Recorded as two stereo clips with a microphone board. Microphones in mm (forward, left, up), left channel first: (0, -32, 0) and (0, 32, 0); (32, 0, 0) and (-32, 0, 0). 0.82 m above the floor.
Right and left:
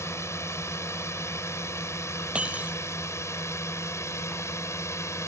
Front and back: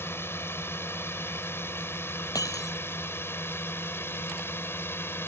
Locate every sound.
0.0 s a drone: 50° right
2.4 s breaking glass: 20° left